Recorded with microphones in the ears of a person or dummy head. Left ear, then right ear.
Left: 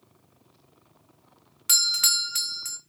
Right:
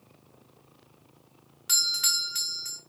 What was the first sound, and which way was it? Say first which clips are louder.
A doorbell: left 3 dB; 25° left (ahead or behind).